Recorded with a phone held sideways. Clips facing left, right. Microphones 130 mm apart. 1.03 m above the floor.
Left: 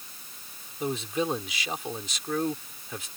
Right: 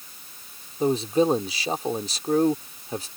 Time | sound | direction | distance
0.8 | a man speaking | 35° right (ahead or behind) | ?